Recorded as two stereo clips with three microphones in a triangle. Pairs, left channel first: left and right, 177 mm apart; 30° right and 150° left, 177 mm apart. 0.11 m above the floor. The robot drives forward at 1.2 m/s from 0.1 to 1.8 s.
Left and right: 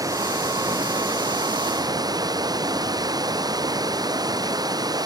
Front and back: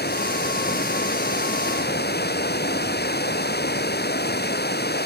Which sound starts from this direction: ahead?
Running water, at 0.0 s.